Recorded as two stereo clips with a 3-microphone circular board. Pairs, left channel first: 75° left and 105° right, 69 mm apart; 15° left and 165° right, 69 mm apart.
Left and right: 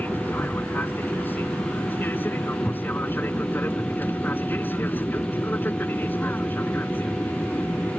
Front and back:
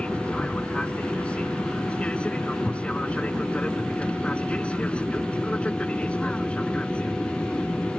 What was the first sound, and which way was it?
An aircraft, 70° left.